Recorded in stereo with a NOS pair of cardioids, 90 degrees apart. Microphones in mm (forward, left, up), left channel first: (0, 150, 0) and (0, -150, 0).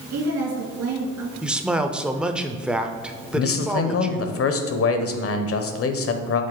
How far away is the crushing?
I don't hear crushing.